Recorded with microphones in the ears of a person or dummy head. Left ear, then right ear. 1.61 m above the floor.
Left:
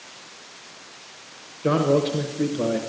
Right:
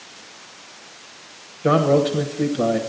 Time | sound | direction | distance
1.6 | a man speaking | 15° right (ahead or behind) | 1.0 m